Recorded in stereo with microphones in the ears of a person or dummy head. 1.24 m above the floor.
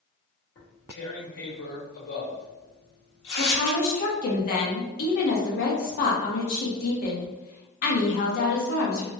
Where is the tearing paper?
60° left (ahead or behind), 1.3 m.